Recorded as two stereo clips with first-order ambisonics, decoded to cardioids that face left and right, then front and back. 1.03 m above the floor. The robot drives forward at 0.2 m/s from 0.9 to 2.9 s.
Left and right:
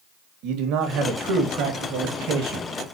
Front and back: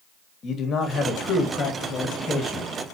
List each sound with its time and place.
0.4 s a man speaking: 60° right, 1.4 m; by 2.7 s 75° right, 1.3 m